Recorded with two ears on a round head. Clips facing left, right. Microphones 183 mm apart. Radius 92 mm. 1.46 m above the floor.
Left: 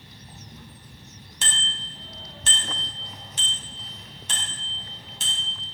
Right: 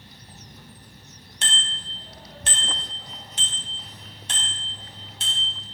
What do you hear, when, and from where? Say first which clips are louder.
1.4 s a bicycle bell: right 1 dB; 80° left, 4 m